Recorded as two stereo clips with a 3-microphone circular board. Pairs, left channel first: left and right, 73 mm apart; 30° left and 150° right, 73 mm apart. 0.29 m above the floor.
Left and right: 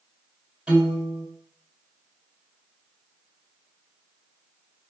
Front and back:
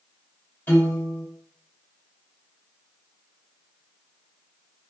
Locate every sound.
0.7 s a piano: 15° right, 1.9 m